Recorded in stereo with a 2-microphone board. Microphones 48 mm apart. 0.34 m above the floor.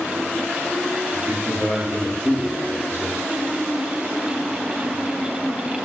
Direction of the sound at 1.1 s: 50° right (ahead or behind).